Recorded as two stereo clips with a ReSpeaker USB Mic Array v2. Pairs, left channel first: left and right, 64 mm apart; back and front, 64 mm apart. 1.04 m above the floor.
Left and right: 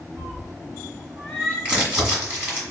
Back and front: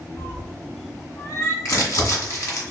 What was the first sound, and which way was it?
A cat meowing, 150° right.